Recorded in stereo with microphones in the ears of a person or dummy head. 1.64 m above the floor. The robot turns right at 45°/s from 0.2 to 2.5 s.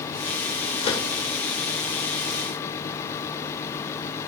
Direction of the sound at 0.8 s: 40° left (ahead or behind).